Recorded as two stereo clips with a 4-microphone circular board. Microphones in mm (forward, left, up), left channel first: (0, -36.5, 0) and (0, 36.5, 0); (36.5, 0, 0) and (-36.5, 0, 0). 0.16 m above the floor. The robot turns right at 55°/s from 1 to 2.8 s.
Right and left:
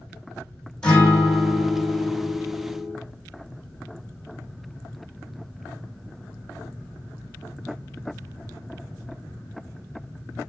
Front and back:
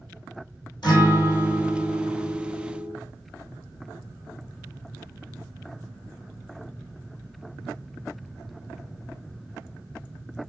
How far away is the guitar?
About 4.5 m.